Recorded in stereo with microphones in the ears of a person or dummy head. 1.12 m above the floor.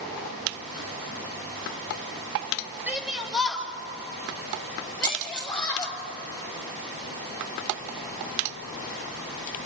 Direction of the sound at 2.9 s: 5° right (ahead or behind).